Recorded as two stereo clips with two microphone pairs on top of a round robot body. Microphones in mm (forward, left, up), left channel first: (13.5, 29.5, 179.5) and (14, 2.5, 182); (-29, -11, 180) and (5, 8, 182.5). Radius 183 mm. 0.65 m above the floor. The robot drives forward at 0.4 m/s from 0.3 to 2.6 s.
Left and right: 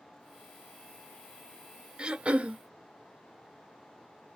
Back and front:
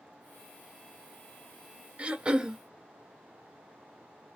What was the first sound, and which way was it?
Throat clearing, 30° right.